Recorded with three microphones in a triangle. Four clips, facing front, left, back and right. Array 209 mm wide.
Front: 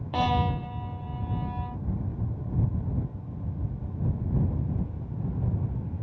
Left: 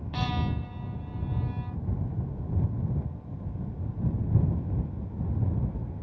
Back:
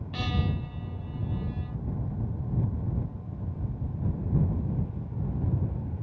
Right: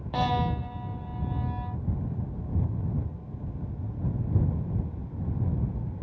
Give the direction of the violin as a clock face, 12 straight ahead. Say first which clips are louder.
Right 5 dB, front 7 dB; 1 o'clock.